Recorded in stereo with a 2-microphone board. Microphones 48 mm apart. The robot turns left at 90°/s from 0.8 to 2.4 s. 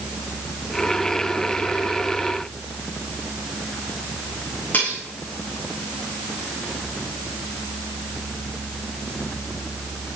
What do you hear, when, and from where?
4.7 s cutlery clinking: 35° left (ahead or behind), 7 m